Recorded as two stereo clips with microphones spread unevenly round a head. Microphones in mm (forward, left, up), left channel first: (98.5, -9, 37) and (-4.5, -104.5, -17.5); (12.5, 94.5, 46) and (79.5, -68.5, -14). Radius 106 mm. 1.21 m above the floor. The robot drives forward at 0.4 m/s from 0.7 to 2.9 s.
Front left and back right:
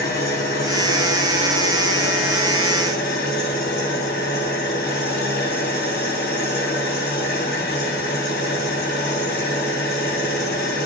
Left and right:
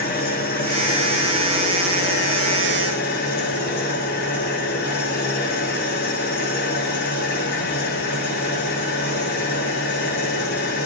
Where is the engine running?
80° left, 7.5 m; by 10.9 s 85° left, 7 m.